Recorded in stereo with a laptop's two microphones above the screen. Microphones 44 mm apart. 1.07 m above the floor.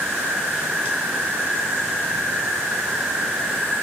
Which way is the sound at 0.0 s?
65° right (ahead or behind).